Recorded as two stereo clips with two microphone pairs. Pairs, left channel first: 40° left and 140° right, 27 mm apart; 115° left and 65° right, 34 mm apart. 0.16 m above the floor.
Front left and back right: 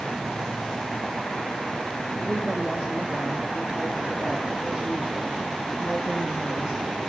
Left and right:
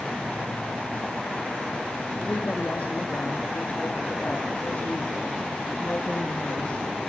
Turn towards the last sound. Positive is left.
turn(degrees=170)